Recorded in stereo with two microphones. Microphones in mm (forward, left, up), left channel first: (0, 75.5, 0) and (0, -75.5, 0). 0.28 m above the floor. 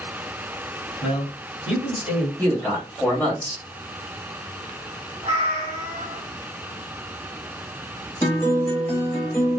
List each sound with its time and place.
1.0 s a man speaking: 10° right (ahead or behind), 1.8 m
2.4 s a man speaking: 10° left (ahead or behind), 1.3 m
5.2 s a cat meowing: 35° right (ahead or behind), 1.1 m
8.2 s a guitar: 15° left (ahead or behind), 1.1 m